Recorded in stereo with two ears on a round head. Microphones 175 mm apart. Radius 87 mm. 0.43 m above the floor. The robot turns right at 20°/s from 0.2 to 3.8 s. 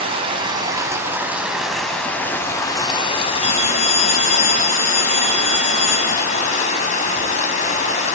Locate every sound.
0.0 s running water: 30° right, 2 m; by 8.2 s 40° left, 2 m
3.4 s a phone ringing: 35° left (ahead or behind), 6 m; by 6.5 s 45° left (ahead or behind), 6 m